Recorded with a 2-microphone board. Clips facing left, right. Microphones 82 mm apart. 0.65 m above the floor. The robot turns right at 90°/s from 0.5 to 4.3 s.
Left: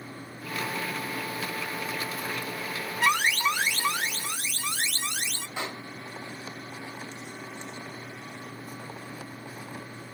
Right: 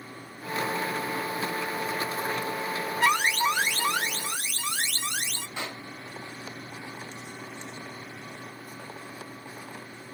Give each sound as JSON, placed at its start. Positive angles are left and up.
{"t": 3.0, "sound": "an alarm", "azimuth_deg": 175, "distance_m": 2.5}
{"t": 5.6, "sound": "a pop", "side_deg": 15, "distance_m": 1.4}